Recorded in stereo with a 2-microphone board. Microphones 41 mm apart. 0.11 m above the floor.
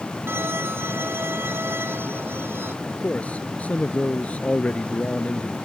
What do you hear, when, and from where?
0.3 s a violin: 75° right (ahead or behind)
2.9 s a man speaking: 35° left (ahead or behind)